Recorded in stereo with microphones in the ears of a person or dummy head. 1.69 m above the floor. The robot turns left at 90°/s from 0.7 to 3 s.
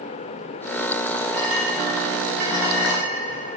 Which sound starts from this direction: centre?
A clink, at 1.3 s.